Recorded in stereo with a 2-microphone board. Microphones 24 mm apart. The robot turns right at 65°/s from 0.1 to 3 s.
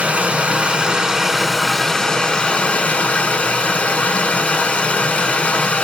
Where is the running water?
100° right, 0.7 m; by 5.8 s 90° left, 0.7 m.